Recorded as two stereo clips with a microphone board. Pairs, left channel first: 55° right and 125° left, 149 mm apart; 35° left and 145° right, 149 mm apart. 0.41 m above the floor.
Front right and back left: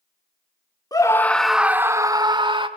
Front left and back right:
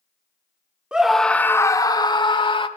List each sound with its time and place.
0.9 s a scream: 70° right, 0.8 m; by 2.7 s 80° left, 1.2 m